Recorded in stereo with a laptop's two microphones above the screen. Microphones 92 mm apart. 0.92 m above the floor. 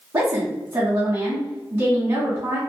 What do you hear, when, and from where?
0.1 s a woman speaking: 35° right (ahead or behind), 0.8 m